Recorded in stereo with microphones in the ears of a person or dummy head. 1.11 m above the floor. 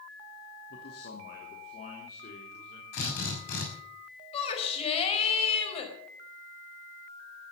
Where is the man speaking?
60° left (ahead or behind), 2.5 m; by 2.8 s 45° left (ahead or behind), 3.5 m.